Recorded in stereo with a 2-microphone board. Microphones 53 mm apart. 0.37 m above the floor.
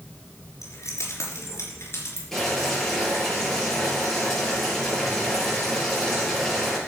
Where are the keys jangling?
70° left (ahead or behind), 4 m; by 2.2 s 45° left (ahead or behind), 4 m.